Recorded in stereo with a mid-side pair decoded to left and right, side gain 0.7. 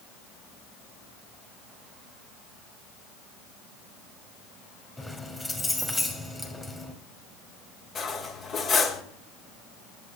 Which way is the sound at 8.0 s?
40° left.